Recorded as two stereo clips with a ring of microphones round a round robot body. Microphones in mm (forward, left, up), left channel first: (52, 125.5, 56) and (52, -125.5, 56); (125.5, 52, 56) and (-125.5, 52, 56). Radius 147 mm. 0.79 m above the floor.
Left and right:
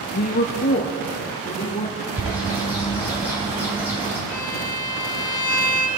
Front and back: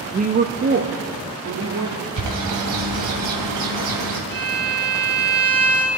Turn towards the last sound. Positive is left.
turn(degrees=50)